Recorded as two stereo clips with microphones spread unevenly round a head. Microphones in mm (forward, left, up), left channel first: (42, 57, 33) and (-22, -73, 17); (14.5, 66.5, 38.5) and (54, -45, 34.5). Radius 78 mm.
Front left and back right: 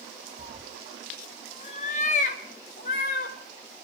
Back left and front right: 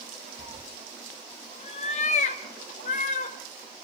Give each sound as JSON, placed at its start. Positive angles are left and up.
{"t": 0.4, "sound": "a cat meowing", "azimuth_deg": -80, "distance_m": 1.1}